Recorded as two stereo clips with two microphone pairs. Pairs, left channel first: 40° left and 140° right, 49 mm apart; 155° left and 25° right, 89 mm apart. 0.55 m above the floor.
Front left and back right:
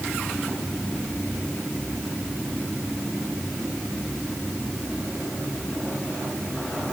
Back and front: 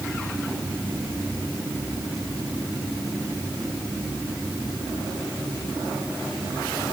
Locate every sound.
Only background noise.